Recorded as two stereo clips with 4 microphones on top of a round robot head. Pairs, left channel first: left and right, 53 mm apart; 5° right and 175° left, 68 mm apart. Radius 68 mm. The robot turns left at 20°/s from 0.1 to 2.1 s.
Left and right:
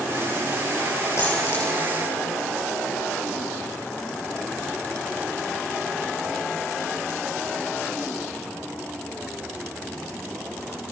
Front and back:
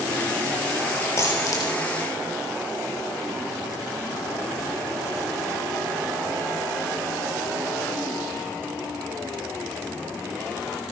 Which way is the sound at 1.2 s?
45° left.